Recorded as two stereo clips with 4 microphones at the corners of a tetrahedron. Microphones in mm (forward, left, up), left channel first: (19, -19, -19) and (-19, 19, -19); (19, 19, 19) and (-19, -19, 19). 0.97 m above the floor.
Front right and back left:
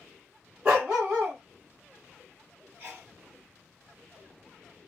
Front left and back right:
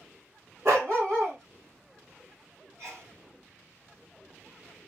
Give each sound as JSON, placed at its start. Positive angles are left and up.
{"t": 0.7, "sound": "a dog barking", "azimuth_deg": -155, "distance_m": 1.5}
{"t": 2.8, "sound": "a sneeze", "azimuth_deg": -170, "distance_m": 1.6}